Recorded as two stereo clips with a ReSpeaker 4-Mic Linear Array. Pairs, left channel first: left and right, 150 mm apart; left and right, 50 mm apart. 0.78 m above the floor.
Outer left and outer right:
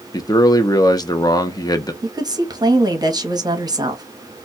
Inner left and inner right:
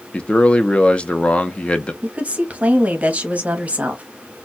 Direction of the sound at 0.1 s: 25° left (ahead or behind).